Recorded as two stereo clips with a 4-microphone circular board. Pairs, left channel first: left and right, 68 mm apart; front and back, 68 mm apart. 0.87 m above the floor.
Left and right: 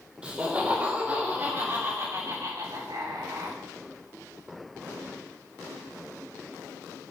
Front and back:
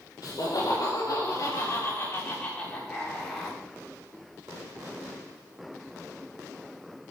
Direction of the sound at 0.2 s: 20° right.